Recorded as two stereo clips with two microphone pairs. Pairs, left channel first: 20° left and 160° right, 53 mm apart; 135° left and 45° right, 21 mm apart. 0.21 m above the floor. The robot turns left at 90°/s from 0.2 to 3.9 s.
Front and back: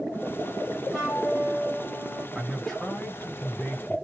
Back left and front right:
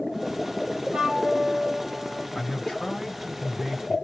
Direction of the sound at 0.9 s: 75° right.